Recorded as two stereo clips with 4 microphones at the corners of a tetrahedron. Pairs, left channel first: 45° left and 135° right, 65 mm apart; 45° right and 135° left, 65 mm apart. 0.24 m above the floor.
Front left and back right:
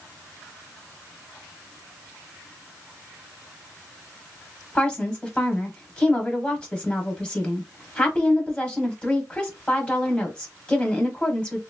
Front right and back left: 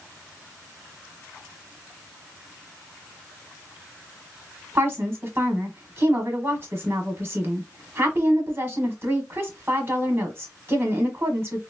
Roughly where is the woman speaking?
Behind left.